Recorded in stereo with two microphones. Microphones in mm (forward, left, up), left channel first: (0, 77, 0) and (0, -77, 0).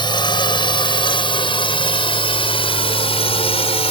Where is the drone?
30° left (ahead or behind); by 3.9 s 40° left (ahead or behind).